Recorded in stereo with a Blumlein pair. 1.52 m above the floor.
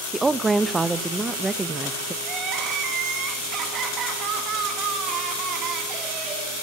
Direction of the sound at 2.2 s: 30° right.